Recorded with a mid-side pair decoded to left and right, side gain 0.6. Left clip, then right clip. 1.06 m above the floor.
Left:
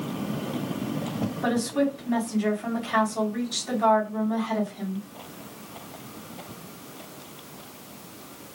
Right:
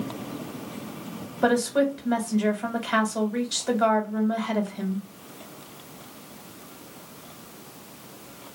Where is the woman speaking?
65° right, 1.5 m.